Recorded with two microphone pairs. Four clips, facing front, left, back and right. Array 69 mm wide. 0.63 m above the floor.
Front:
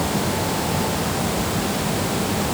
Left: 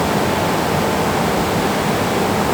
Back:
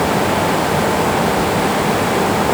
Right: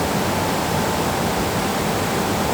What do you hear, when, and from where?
Only background noise.